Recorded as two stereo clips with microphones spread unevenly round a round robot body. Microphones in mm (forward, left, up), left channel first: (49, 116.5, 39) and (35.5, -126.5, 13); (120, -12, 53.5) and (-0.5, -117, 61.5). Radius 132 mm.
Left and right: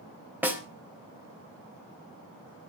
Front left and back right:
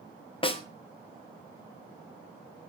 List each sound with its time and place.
0.4 s a snare drum: 15° right, 3.5 m